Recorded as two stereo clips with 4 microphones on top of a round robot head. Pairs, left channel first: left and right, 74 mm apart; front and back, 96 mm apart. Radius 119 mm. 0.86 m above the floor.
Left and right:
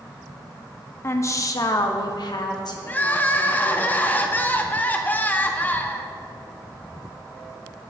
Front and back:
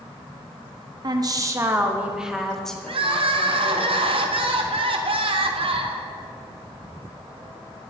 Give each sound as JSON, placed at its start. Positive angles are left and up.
{"t": 1.0, "sound": "a woman speaking", "azimuth_deg": 140, "distance_m": 1.5}
{"t": 2.9, "sound": "crying", "azimuth_deg": 155, "distance_m": 1.1}